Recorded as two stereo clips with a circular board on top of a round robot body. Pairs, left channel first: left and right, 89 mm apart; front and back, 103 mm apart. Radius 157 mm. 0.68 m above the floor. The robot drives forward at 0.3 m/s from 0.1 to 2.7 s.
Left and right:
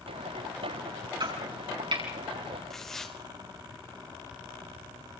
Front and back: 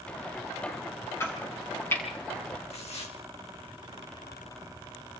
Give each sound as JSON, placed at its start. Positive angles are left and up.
{"t": 1.2, "sound": "chopping", "azimuth_deg": -65, "distance_m": 7.5}
{"t": 2.7, "sound": "tearing paper", "azimuth_deg": 5, "distance_m": 4.0}